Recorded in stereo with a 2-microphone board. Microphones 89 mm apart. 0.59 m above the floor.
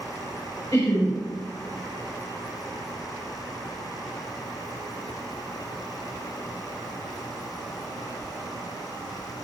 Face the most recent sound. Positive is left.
turn(degrees=45)  # may be behind; listen again after turning